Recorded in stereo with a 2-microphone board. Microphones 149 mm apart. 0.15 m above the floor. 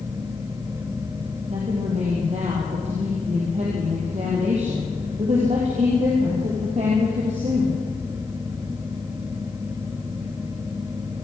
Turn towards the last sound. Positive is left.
turn(degrees=-55)  # may be behind; listen again after turning